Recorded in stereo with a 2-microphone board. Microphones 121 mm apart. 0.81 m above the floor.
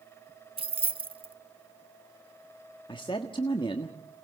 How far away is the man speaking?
About 1.4 m.